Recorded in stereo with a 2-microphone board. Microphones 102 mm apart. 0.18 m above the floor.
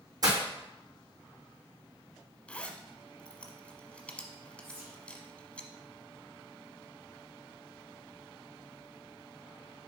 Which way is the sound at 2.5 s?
15° left (ahead or behind).